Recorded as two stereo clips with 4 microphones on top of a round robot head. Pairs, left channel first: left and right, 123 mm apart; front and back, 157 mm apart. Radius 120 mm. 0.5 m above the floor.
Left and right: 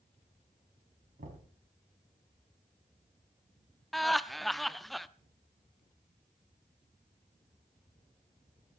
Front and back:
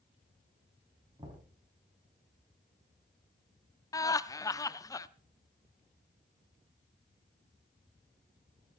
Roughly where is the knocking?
Right.